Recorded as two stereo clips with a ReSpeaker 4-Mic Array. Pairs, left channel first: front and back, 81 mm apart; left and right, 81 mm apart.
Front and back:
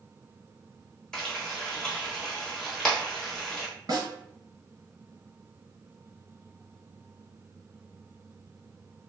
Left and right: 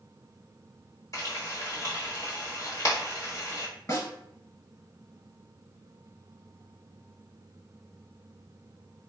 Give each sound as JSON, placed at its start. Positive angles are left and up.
{"t": 1.1, "sound": "frying", "azimuth_deg": 80, "distance_m": 1.0}
{"t": 3.9, "sound": "a snare drum", "azimuth_deg": 140, "distance_m": 1.2}